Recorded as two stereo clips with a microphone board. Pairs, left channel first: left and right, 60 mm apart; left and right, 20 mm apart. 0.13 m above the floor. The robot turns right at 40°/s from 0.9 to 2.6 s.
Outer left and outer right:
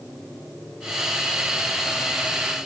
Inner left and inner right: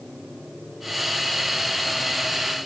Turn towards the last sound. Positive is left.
No sound to turn to.